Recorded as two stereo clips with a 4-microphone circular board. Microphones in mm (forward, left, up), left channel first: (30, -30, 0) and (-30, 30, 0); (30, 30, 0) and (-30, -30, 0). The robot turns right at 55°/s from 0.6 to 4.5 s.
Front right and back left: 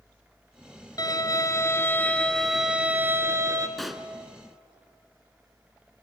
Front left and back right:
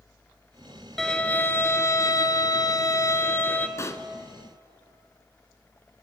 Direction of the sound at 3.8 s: 40° left.